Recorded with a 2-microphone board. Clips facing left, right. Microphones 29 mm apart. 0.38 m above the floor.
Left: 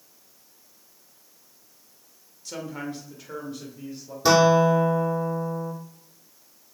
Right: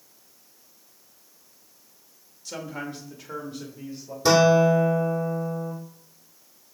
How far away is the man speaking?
About 1.3 m.